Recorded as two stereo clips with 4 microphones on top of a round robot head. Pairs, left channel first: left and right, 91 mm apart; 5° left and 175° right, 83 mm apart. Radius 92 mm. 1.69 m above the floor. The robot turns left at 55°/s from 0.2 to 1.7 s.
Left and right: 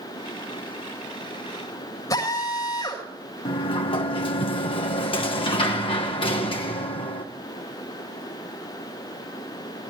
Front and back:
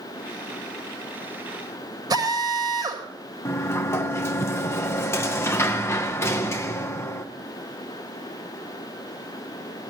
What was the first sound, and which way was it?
A drill, 150° left.